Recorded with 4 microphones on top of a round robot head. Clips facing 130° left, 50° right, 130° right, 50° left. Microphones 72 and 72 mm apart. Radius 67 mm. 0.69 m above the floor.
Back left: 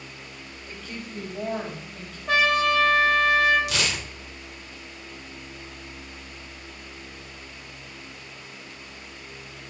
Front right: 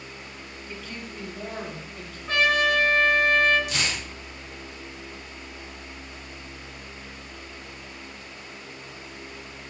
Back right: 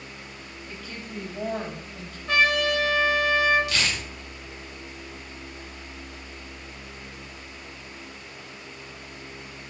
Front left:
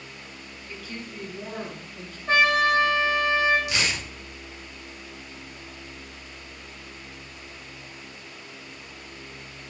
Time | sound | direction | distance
0.7 | a woman speaking | 170° left | 4 m
2.3 | a trumpet | 105° left | 2.5 m
3.7 | tearing paper | 120° left | 1.3 m